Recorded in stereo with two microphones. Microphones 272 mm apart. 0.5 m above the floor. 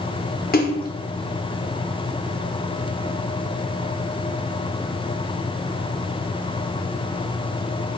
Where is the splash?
35° left (ahead or behind), 0.8 m.